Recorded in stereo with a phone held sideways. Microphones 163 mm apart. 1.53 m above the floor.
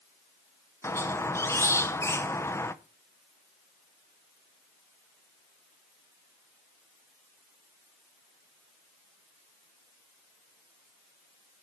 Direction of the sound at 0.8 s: 15° left (ahead or behind).